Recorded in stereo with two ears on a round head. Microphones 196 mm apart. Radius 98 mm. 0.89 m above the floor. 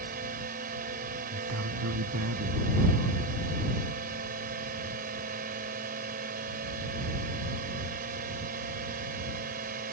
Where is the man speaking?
70° right (ahead or behind).